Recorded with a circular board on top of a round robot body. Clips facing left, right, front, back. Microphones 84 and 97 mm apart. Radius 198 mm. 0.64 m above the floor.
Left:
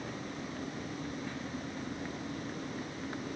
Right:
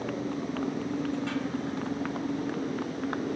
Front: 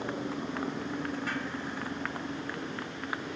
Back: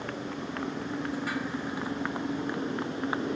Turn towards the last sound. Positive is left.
turn(degrees=-120)